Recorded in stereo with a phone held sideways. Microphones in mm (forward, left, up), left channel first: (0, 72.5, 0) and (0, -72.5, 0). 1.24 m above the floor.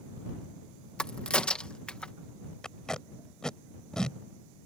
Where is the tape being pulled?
5° left (ahead or behind).